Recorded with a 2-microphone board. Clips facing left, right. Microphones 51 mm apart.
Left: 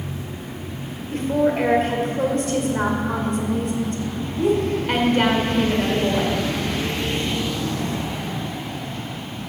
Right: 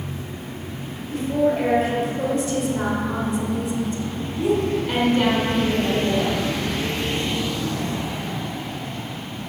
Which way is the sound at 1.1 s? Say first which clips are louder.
Left 1 dB; 55° left (ahead or behind).